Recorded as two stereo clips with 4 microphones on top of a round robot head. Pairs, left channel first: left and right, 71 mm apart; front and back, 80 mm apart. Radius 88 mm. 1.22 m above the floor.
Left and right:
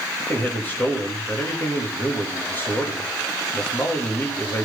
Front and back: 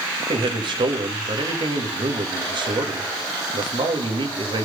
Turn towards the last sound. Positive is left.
turn(degrees=155)